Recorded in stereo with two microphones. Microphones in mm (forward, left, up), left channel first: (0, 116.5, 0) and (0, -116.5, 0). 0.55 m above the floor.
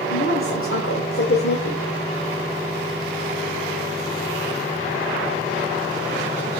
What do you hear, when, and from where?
0.1 s a woman speaking: 60° left (ahead or behind), 2.5 m